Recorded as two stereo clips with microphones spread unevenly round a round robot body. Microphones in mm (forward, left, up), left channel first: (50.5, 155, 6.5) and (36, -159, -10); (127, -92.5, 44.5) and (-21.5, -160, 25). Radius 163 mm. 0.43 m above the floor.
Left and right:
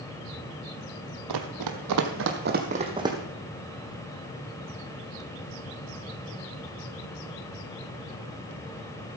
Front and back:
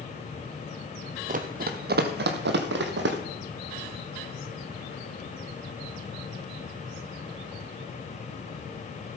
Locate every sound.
1.3 s running footsteps: 115° right, 1.1 m; by 3.2 s 175° right, 1.2 m